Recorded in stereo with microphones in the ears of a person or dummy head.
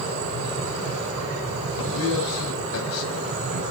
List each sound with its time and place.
1.8 s a man speaking: 90° left, 5.5 m